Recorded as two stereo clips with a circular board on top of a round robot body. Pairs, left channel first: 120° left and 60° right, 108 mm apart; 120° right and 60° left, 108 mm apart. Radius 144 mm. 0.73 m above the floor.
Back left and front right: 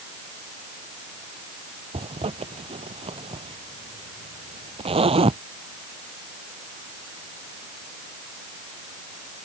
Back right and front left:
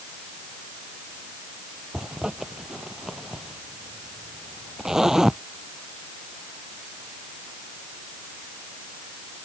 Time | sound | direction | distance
1.9 | a zipper | 25° right | ?